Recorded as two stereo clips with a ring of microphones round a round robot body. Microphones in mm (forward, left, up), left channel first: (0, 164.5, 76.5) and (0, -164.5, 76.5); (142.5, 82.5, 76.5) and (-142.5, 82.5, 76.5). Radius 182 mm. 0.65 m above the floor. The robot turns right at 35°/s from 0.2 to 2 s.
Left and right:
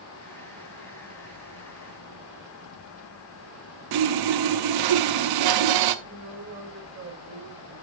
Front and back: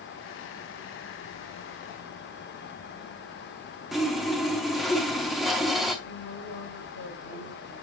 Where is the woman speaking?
30° right, 6.5 m.